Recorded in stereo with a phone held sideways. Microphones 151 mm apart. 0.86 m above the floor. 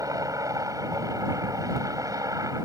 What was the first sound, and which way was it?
A helicopter, 20° right (ahead or behind).